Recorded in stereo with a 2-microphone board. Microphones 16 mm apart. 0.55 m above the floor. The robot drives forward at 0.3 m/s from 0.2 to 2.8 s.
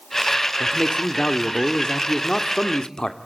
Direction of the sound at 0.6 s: 45° left (ahead or behind).